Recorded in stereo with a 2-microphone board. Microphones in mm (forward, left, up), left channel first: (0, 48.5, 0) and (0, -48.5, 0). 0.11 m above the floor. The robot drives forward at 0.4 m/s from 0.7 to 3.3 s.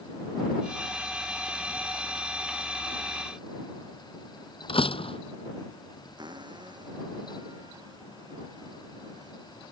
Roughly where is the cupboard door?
Right.